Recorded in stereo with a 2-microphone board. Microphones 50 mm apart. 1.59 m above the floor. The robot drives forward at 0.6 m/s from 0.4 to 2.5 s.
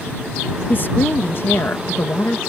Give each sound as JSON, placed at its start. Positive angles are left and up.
{"t": 0.7, "sound": "a woman speaking", "side_deg": 45}